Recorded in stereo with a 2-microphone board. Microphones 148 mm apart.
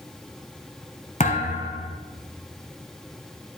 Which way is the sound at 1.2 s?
55° left (ahead or behind).